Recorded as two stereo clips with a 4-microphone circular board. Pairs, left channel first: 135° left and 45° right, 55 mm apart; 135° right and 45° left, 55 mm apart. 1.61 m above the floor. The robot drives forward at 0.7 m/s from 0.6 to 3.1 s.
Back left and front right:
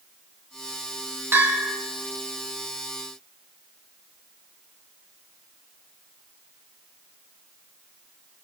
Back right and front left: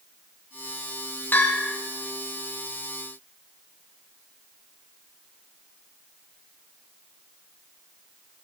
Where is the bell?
80° right, 3 m; by 1.8 s 90° right, 3 m.